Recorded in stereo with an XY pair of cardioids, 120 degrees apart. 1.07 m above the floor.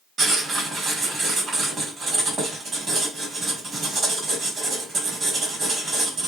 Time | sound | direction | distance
0.2 | writing | 35° right | 1.4 m